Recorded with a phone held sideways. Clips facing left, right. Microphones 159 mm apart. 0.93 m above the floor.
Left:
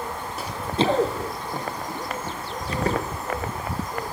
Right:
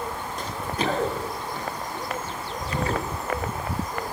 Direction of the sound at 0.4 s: 5° left (ahead or behind).